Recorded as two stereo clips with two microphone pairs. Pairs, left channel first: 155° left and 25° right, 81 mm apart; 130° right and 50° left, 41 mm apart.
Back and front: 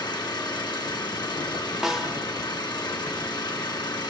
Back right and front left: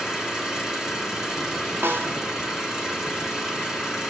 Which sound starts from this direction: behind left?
An engine running, at 0.0 s.